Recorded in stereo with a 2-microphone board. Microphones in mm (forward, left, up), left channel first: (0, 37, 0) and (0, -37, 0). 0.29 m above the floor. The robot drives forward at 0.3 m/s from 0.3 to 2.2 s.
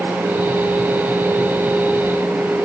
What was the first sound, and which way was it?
Only background noise.